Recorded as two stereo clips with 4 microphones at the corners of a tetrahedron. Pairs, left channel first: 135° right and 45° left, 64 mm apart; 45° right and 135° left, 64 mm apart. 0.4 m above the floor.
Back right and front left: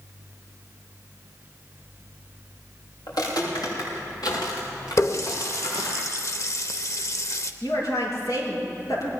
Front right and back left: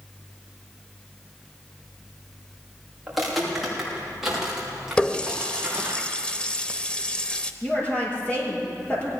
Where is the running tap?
115° right, 0.7 m.